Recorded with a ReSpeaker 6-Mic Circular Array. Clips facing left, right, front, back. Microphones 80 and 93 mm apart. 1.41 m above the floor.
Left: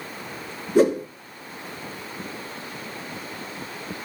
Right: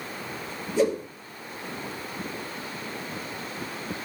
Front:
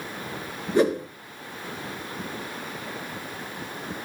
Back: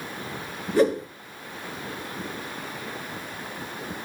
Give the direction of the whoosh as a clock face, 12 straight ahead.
10 o'clock.